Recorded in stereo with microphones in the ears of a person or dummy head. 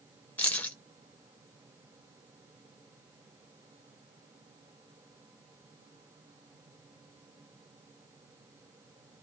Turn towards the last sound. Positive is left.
turn(degrees=10)  # may be behind; listen again after turning